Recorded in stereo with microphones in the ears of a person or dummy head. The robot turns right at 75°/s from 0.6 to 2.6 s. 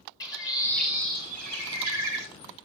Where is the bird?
160° left, 1.9 m; by 2.3 s 75° right, 1.9 m.